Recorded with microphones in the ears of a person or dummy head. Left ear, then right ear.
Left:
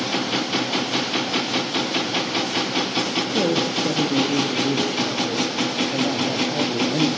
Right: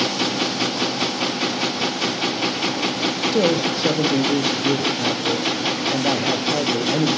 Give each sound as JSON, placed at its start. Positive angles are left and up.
{"t": 3.3, "sound": "a man speaking", "side_deg": -40, "distance_m": 2.5}